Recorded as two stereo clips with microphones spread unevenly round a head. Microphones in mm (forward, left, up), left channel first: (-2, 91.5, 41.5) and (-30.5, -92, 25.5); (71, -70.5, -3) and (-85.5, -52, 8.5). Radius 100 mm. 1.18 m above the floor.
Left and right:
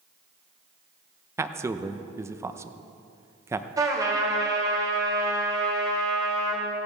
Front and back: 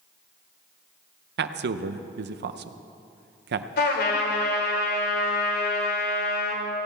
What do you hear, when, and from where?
1.4 s a man speaking: 175° right, 0.7 m
3.8 s a trumpet: 25° right, 2.5 m